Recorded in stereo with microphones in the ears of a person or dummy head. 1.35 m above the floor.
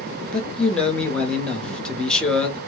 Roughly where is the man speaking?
Centre.